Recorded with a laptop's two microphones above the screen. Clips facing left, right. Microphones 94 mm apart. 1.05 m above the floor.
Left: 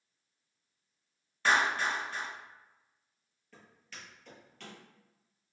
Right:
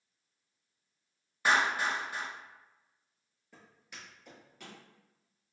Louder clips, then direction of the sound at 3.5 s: Even; 20° right (ahead or behind).